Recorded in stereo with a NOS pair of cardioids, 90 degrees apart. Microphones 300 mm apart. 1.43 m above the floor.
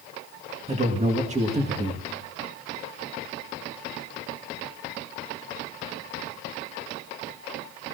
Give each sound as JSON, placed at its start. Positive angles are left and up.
{"t": 0.7, "sound": "a man speaking", "azimuth_deg": -25, "distance_m": 1.8}